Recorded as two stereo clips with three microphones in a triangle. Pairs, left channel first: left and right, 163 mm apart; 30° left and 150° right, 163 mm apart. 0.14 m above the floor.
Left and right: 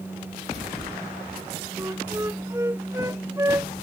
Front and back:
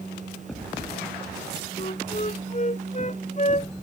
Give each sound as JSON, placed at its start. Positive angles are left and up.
{"t": 1.8, "sound": "a flute", "azimuth_deg": -15}